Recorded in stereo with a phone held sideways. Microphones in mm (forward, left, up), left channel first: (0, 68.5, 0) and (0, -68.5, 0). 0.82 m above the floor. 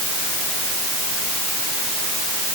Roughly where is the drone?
No drone in this recording.